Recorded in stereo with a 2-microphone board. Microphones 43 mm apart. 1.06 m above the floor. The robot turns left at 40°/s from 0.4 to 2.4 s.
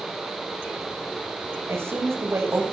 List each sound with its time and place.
1.7 s a woman speaking: 65° right (ahead or behind), 7 m; by 2.6 s 85° right, 7 m